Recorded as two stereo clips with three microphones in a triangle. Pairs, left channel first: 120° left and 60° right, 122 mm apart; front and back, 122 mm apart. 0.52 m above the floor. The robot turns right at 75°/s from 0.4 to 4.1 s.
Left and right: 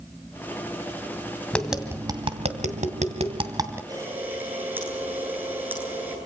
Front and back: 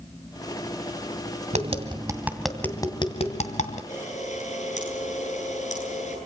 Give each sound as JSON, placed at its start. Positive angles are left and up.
{"t": 1.5, "sound": "tapping", "azimuth_deg": -160, "distance_m": 2.5}
{"t": 3.9, "sound": "a camera shutter", "azimuth_deg": 0, "distance_m": 10.0}